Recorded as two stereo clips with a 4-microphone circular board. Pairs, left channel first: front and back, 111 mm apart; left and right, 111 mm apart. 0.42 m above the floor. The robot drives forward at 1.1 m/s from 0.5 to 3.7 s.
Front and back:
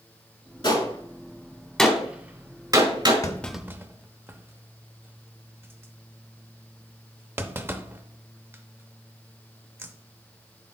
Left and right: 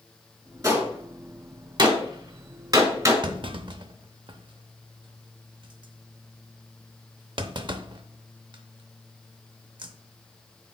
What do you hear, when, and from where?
0.6 s a gunshot: 30° right, 1.9 m; by 3.1 s 145° right, 1.8 m
3.2 s a clunk: 50° right, 0.6 m; by 9.9 s 115° right, 0.5 m